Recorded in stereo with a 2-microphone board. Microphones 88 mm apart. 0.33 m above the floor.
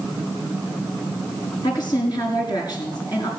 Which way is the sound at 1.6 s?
50° left (ahead or behind).